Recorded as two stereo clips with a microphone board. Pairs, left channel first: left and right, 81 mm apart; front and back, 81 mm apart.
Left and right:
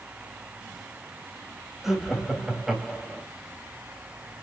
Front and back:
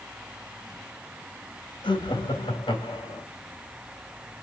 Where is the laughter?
5° right, 4 m.